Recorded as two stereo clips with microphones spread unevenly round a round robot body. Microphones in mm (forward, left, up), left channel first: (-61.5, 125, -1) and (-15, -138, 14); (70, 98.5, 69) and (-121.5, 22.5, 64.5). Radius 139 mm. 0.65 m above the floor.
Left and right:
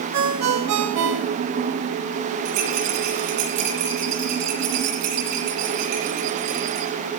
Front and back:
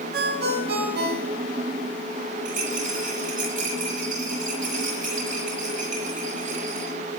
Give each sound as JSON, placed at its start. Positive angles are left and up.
{"t": 0.1, "sound": "a ringtone", "azimuth_deg": -110, "distance_m": 2.5}
{"t": 2.5, "sound": "a rattle", "azimuth_deg": -100, "distance_m": 9.0}